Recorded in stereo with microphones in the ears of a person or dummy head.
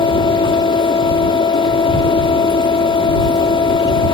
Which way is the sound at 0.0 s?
30° left (ahead or behind).